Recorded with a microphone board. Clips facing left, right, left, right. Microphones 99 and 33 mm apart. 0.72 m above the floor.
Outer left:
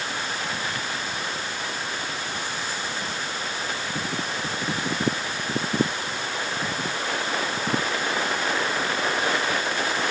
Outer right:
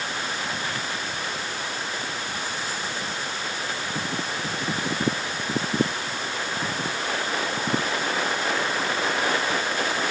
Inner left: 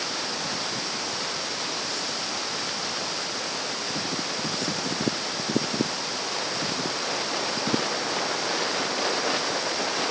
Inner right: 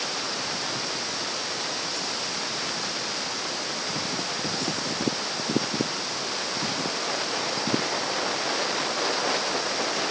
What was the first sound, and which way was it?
Only background noise.